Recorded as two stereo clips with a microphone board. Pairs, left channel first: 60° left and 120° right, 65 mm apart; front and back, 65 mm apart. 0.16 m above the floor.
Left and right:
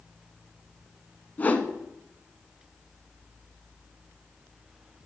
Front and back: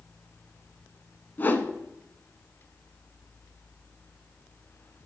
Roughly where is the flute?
No flute in this recording.